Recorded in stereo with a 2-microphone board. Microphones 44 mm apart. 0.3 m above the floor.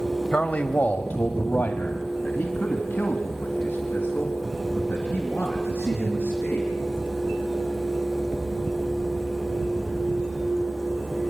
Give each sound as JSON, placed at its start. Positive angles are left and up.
{"t": 0.3, "sound": "a man speaking", "side_deg": 35, "distance_m": 1.3}